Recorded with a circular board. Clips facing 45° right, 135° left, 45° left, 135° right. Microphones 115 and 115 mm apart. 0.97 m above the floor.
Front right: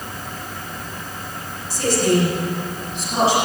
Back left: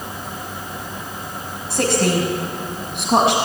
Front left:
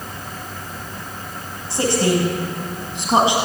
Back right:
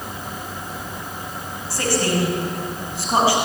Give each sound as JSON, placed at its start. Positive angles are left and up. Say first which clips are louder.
{"t": 1.7, "sound": "a woman speaking", "louder": "even, front left 3 dB", "azimuth_deg": 115, "distance_m": 6.0}